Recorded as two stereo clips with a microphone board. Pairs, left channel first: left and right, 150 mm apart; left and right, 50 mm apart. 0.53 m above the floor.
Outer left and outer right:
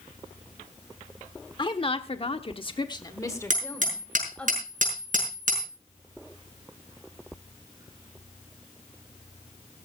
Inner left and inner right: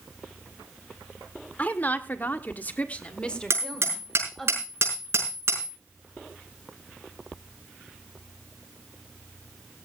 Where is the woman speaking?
35° left (ahead or behind), 1.4 m; by 4.5 s 10° left (ahead or behind), 2.5 m.